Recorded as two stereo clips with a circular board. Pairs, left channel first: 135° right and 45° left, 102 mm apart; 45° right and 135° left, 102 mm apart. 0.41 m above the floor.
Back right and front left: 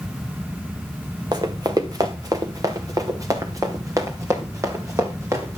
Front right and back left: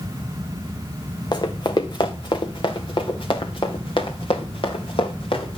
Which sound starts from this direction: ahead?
Running footsteps, at 1.3 s.